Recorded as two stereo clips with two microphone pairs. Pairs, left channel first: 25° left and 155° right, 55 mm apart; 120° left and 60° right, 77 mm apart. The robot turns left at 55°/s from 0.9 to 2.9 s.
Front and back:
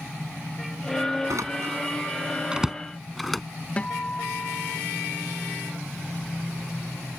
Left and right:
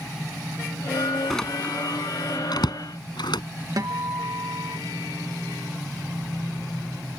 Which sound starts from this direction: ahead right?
A guitar, at 3.8 s.